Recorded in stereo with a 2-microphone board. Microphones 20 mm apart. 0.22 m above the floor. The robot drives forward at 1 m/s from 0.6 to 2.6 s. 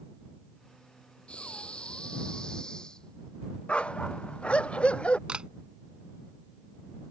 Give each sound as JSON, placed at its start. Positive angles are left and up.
{"t": 1.3, "sound": "breathing", "side_deg": 80}
{"t": 3.7, "sound": "a dog barking", "side_deg": 65}
{"t": 5.3, "sound": "a camera shutter", "side_deg": -60}